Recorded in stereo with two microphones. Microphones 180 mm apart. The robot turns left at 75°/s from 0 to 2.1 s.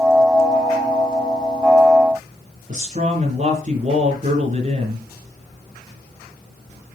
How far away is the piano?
I don't hear a piano.